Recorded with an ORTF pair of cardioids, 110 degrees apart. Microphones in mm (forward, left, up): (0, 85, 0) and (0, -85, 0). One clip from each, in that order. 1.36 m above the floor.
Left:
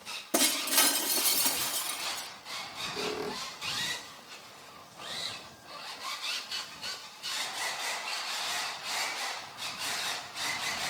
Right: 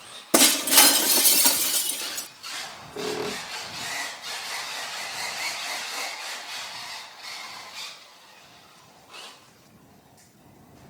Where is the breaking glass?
55° right.